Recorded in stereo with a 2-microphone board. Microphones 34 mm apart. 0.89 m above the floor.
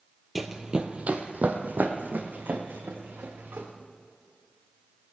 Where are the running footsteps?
Centre (ahead or behind), 1.0 m; by 3.7 s 80° right, 4 m.